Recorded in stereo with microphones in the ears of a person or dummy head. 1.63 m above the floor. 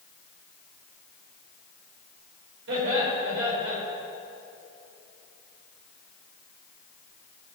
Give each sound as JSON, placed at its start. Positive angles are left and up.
{"t": 2.7, "sound": "laughter", "side_deg": -70, "distance_m": 5.5}